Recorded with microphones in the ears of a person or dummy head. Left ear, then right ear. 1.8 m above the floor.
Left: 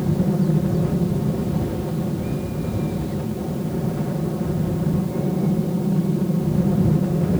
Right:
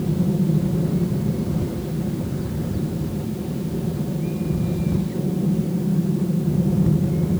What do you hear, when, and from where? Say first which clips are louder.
0.0 s an aircraft: left 1 dB; 35° left (ahead or behind)